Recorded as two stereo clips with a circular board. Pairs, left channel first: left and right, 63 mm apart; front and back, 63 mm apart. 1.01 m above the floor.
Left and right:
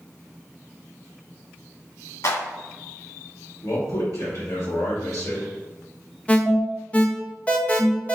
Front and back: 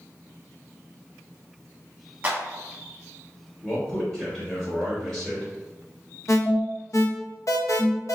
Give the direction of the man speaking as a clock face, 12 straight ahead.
10 o'clock.